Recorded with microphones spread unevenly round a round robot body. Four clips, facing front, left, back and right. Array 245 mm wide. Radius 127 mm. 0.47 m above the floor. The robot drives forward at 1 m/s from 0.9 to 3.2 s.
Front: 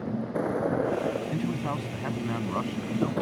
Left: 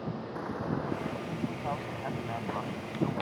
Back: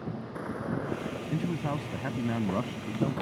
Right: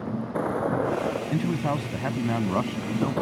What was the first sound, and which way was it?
A vehicle, 35° right.